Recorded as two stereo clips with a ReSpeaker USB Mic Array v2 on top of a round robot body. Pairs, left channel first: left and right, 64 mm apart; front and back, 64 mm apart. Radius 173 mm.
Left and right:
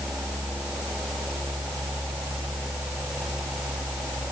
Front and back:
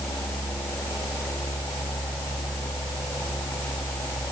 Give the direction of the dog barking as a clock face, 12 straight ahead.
I don't hear a dog barking.